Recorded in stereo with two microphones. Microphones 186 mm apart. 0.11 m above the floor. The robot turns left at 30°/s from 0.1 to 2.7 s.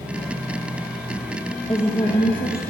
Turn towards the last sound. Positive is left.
turn(degrees=105)